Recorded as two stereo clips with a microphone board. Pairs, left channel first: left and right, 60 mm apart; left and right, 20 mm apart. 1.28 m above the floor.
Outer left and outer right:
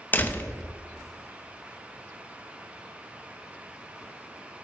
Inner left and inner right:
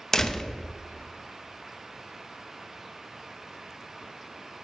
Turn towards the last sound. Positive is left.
turn(degrees=30)  # may be behind; listen again after turning